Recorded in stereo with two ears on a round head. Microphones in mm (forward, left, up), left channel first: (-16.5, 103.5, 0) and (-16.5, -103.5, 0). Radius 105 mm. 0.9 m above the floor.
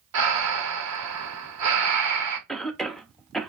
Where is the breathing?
85° right, 1.2 m.